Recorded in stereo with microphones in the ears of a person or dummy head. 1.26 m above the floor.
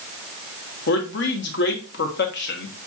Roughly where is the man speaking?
Left.